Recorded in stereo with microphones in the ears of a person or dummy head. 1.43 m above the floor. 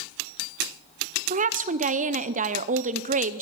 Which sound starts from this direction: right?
A woman speaking, at 1.3 s.